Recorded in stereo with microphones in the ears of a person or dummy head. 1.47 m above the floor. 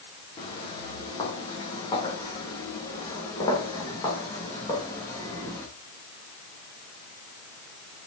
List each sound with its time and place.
0.4 s footsteps: 25° left (ahead or behind), 6.5 m; by 5.7 s 15° left (ahead or behind), 8 m